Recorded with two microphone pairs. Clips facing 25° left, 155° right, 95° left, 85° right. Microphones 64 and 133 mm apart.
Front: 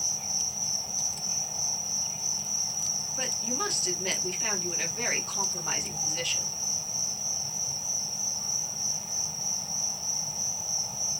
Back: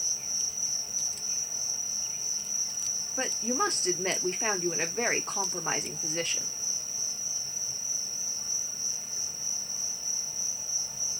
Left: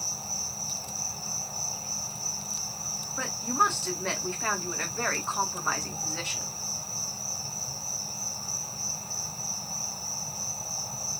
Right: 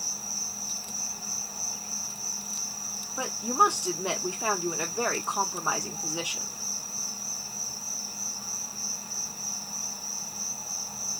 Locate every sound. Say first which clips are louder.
0.0 s an insect: front 3 dB, left 3 dB; 30° left, 1.4 m
3.2 s a woman speaking: back 5 dB, right 3 dB; 150° right, 0.6 m